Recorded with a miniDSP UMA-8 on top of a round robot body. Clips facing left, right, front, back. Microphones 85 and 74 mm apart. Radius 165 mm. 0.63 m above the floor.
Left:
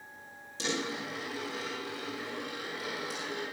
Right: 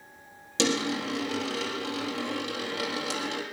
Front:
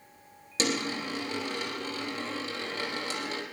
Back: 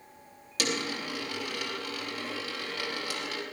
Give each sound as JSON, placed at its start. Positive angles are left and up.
{"t": 0.6, "sound": "a dropped coin", "azimuth_deg": -65, "distance_m": 3.5}